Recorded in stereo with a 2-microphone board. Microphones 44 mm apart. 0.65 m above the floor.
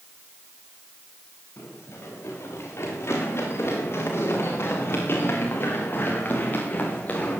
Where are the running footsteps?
75° left (ahead or behind), 9 m; by 7.4 s 35° left (ahead or behind), 5.5 m.